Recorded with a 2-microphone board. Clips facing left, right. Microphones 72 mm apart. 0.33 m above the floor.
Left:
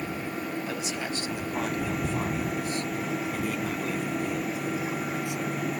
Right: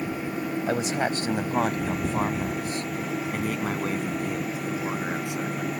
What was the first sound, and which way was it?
A man speaking, 45° right (ahead or behind).